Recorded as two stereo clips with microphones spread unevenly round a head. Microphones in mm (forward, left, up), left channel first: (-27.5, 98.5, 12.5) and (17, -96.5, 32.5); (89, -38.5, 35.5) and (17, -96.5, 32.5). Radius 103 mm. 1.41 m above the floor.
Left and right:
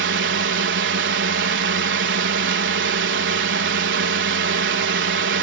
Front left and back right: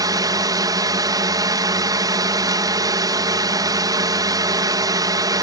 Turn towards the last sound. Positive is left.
turn(degrees=-100)